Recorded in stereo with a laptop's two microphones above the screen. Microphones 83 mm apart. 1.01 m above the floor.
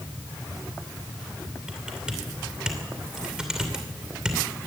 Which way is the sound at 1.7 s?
10° right (ahead or behind).